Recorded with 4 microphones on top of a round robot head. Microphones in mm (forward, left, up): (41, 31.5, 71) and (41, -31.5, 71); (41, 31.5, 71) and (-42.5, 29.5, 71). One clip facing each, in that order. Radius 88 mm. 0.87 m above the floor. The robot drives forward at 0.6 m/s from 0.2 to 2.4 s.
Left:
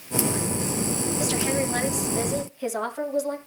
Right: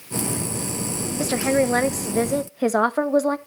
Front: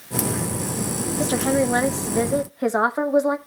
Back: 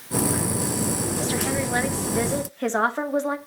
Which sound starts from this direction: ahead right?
A woman speaking, at 1.2 s.